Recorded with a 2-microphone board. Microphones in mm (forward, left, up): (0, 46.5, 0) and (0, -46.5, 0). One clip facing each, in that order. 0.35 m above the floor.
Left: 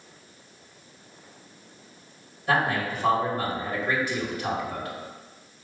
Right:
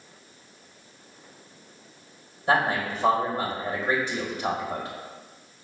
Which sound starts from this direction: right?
A man speaking, at 2.5 s.